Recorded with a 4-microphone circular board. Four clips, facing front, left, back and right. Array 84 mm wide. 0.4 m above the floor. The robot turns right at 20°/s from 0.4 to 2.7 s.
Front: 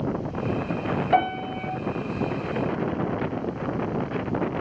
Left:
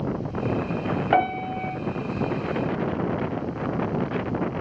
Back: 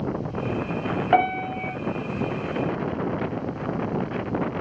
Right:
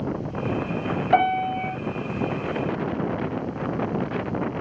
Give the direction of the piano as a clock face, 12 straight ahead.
8 o'clock.